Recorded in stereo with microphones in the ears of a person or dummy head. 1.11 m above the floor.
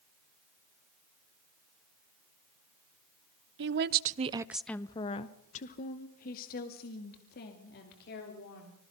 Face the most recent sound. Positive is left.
turn(degrees=55)  # may be behind; listen again after turning